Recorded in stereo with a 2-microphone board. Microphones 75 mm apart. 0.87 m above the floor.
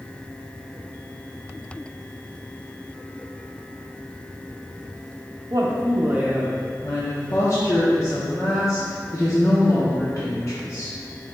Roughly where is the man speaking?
Right.